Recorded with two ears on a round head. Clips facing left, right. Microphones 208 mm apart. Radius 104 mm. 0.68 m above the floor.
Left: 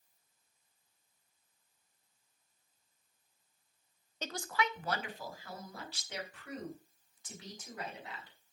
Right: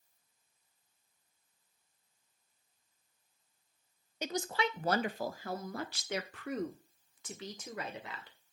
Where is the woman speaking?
10° right (ahead or behind), 0.5 m; by 8.4 s 55° right (ahead or behind), 2.5 m.